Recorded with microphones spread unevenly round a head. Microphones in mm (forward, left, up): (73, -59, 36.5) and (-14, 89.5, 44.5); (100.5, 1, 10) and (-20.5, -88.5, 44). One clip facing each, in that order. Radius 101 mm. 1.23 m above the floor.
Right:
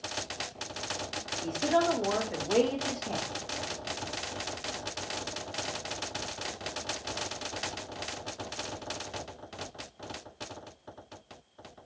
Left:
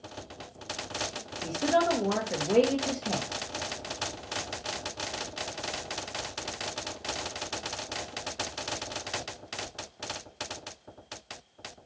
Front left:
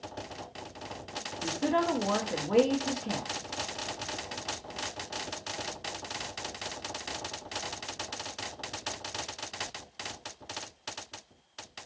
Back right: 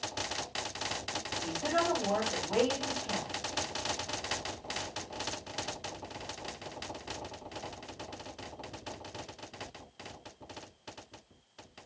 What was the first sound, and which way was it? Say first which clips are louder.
A woman speaking: left 1 dB, front left 3 dB; 70° left.